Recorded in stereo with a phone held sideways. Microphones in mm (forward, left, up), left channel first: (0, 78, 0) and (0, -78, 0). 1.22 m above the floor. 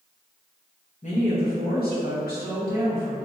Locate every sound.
1.0 s a woman speaking: 45° left (ahead or behind), 0.6 m; by 3.3 s 65° left (ahead or behind), 2 m